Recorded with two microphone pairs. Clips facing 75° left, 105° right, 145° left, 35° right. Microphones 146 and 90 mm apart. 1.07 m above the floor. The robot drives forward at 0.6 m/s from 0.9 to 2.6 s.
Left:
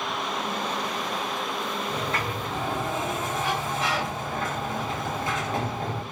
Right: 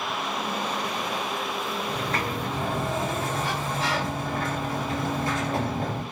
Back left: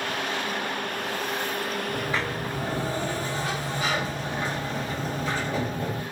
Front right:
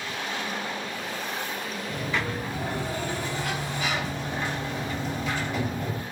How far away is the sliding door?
About 4 m.